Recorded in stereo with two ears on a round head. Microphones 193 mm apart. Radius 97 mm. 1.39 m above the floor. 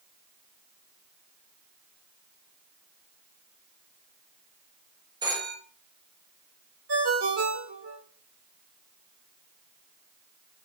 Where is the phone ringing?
20° right (ahead or behind), 1.5 m.